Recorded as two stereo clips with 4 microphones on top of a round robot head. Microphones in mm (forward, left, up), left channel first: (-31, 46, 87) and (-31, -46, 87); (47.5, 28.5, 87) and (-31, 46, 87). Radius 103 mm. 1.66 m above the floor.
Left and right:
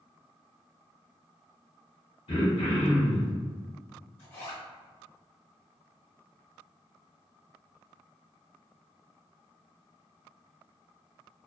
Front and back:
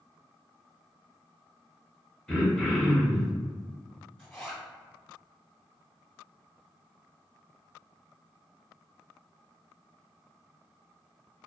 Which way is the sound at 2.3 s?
70° left.